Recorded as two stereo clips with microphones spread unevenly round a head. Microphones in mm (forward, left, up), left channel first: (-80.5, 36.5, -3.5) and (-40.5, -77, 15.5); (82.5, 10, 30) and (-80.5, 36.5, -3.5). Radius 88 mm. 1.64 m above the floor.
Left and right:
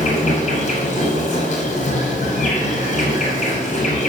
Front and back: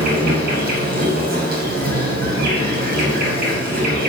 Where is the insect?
135° left, 4 m.